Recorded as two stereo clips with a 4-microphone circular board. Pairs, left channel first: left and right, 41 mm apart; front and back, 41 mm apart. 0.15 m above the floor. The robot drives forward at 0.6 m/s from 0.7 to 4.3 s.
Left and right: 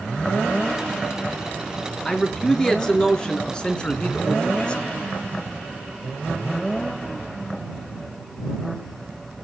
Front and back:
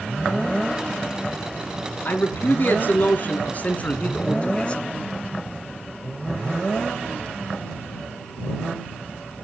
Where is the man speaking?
15° left, 2.5 m; by 4.8 s 40° left, 1.5 m.